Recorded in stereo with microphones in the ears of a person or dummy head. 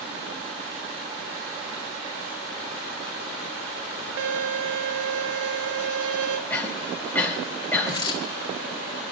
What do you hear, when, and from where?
4.2 s a violin: 75° right (ahead or behind), 0.9 m
6.5 s a cough: 10° left (ahead or behind), 4.5 m
7.9 s a dropped coin: 20° left (ahead or behind), 1.8 m